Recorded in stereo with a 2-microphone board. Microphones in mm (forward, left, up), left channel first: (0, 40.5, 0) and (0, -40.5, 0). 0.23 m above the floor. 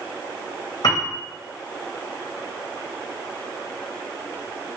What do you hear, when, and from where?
0.8 s a piano: 55° left (ahead or behind), 2 m